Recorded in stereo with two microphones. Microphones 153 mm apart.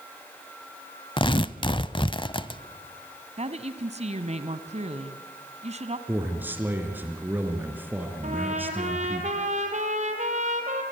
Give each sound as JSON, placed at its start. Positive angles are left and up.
{"t": 1.2, "sound": "tearing paper", "side_deg": 35, "distance_m": 0.6}
{"t": 3.4, "sound": "a woman speaking", "side_deg": -45, "distance_m": 1.3}
{"t": 6.1, "sound": "a man speaking", "side_deg": -10, "distance_m": 2.5}
{"t": 8.2, "sound": "a trumpet", "side_deg": -50, "distance_m": 3.0}